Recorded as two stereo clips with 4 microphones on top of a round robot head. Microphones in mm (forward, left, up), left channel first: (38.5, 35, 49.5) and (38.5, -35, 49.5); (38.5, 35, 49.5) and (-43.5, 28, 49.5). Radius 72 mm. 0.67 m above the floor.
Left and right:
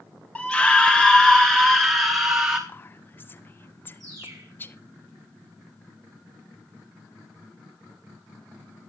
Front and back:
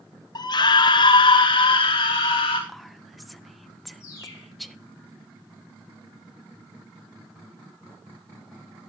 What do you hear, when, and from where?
0.3 s a scream: 20° left, 1.2 m; by 2.6 s 35° right, 2.5 m
2.7 s whispering: 95° left, 1.1 m
4.0 s a bird: 50° right, 4 m